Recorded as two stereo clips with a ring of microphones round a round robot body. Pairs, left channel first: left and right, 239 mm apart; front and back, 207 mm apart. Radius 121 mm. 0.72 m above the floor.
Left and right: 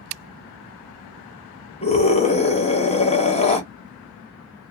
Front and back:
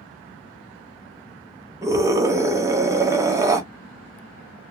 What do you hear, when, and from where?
1.8 s a scream: 120° left, 0.8 m